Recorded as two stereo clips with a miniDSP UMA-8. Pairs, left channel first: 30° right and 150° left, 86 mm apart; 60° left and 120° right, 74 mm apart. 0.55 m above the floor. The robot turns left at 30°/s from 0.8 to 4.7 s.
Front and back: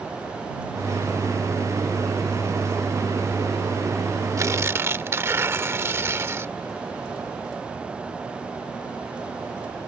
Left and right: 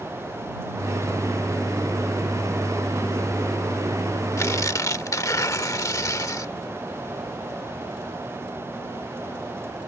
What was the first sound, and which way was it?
Tearing paper, 105° left.